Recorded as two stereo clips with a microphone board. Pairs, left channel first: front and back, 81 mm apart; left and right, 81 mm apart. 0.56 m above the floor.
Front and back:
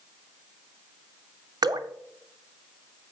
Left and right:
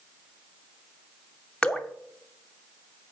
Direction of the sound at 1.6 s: 165° left.